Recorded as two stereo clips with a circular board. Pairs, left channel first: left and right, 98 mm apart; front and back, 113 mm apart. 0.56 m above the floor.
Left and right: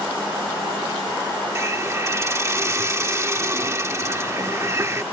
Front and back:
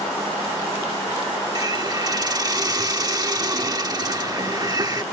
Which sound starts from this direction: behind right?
A hiss, at 1.6 s.